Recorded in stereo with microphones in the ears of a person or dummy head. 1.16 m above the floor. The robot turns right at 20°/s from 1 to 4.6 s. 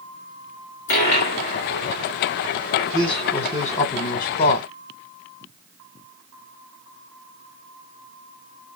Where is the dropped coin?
35° left (ahead or behind), 2.5 m; by 3.8 s 15° right (ahead or behind), 2.5 m.